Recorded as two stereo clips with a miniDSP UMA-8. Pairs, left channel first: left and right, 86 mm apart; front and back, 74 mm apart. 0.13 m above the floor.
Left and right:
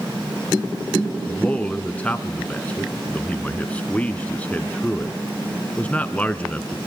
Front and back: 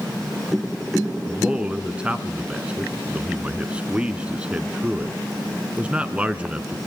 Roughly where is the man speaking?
Behind left.